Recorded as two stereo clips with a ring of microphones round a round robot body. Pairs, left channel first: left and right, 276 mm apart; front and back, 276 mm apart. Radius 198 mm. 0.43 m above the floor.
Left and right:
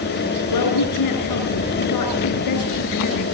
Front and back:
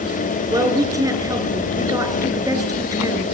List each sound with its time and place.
0.5 s a woman speaking: 100° left, 6.5 m